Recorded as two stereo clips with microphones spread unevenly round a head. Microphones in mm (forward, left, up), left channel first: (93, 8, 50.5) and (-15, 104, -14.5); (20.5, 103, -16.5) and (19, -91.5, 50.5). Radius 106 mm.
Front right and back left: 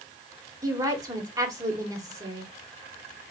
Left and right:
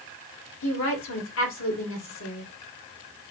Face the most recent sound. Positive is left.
turn(degrees=70)